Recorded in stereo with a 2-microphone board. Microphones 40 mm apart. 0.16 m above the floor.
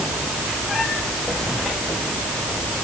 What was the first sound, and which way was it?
Only background noise.